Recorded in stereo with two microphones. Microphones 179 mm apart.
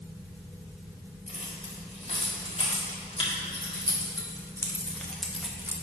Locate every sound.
1.3 s keys jangling: 40° left (ahead or behind), 2.5 m; by 5.7 s 15° right (ahead or behind), 0.9 m